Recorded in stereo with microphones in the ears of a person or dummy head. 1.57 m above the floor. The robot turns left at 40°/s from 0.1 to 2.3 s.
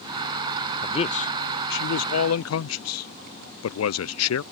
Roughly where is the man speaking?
Behind left.